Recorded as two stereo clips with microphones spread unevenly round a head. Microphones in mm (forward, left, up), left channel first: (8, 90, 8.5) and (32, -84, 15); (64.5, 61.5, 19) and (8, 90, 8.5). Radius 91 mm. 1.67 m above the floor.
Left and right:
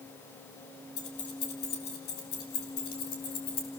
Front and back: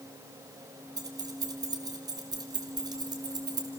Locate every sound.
1.0 s keys jangling: 135° left, 2.5 m; by 3.7 s 140° left, 4 m